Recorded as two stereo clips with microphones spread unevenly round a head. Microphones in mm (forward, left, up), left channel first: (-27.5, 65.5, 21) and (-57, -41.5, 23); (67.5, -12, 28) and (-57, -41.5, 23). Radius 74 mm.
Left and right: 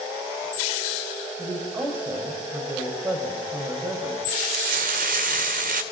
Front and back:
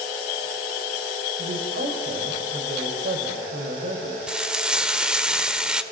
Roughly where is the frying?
Right.